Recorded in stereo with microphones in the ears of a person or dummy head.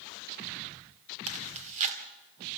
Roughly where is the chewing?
Right.